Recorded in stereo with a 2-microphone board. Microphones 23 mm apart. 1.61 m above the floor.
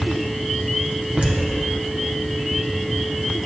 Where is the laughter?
55° right (ahead or behind), 1.3 m.